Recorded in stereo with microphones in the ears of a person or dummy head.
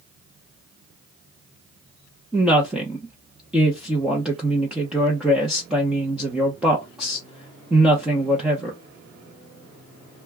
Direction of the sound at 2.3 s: 5° right (ahead or behind).